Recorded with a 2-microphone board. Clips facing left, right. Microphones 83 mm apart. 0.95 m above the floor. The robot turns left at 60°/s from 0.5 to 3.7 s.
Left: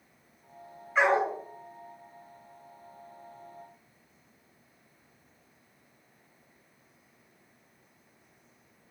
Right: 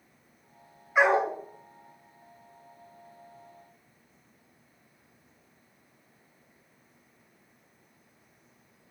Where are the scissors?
I don't hear scissors.